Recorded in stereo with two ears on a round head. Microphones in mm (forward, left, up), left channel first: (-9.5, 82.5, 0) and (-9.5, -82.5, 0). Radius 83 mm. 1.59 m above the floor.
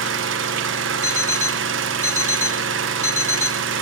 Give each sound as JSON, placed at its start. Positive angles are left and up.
{"t": 0.0, "sound": "an engine running", "side_deg": -75, "distance_m": 1.1}
{"t": 1.0, "sound": "an alarm clock", "side_deg": 15, "distance_m": 0.8}